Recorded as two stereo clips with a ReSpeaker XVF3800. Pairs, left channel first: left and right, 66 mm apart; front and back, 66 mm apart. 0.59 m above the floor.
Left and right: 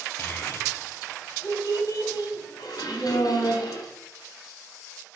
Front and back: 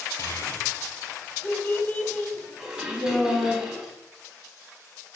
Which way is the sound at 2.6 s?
100° left.